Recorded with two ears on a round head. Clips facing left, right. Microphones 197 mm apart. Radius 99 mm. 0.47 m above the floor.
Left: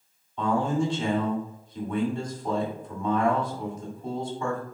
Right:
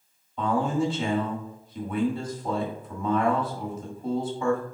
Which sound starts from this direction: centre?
A man speaking, at 0.4 s.